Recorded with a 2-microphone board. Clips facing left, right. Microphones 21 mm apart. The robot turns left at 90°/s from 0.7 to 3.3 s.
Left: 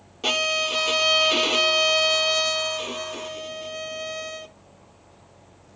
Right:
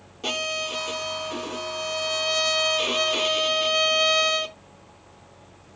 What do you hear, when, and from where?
0.2 s a violin: 160° left; by 4.6 s 75° right